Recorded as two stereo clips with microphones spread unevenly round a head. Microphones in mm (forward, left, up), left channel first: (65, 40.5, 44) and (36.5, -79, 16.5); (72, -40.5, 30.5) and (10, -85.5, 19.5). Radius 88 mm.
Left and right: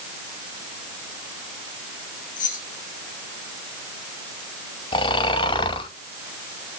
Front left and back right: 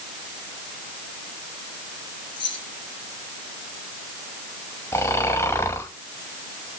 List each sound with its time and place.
2.4 s keys jangling: 65° left, 6 m
4.9 s snoring: 80° left, 1.7 m